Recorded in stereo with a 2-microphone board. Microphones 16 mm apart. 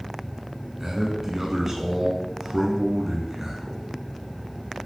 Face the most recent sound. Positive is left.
turn(degrees=-25)  # may be behind; listen again after turning